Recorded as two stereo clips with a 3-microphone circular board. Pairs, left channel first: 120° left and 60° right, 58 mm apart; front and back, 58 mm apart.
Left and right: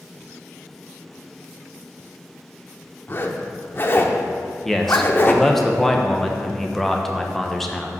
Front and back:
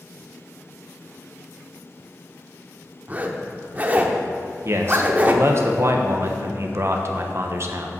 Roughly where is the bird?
No bird in this recording.